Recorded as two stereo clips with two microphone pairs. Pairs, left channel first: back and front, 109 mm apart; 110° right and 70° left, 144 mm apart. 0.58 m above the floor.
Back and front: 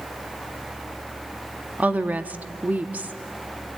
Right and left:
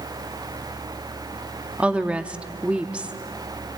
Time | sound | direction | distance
1.8 | a woman speaking | 5° left | 0.7 m